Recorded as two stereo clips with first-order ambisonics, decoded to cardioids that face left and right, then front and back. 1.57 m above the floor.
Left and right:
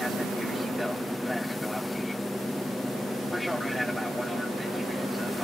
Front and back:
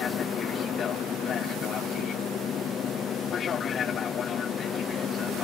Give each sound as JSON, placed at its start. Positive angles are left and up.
{"t": 0.0, "sound": "an aircraft", "azimuth_deg": 5}